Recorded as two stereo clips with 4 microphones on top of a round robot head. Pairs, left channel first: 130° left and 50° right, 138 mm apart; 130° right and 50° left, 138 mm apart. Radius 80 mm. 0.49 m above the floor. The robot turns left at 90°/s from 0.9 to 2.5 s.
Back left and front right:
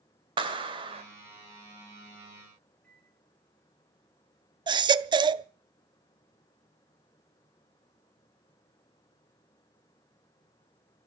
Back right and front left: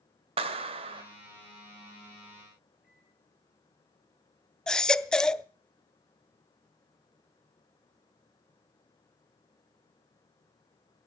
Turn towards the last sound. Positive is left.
turn(degrees=-50)